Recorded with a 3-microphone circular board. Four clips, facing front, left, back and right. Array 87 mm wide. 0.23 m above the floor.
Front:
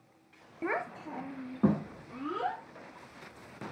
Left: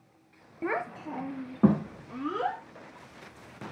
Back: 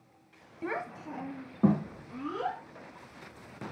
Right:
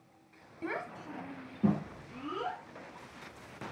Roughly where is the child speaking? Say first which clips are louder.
Left 7 dB, front 1 dB; ahead left.